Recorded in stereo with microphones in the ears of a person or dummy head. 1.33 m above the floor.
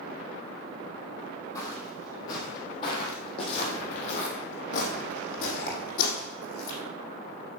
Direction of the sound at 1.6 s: 25° left (ahead or behind).